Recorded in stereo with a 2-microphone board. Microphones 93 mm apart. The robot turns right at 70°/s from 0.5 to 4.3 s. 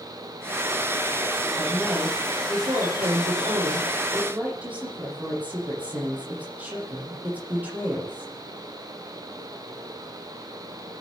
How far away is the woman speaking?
About 8.5 m.